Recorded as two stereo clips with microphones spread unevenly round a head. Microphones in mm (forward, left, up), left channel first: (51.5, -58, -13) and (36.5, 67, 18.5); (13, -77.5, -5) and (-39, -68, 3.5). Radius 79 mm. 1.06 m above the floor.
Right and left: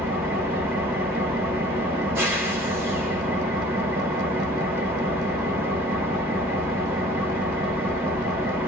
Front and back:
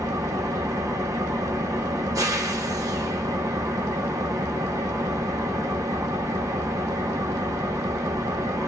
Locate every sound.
0.0 s an engine running: 170° left, 1.2 m